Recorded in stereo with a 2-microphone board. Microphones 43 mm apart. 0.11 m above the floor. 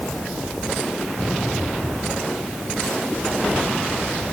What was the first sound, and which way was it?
Only background noise.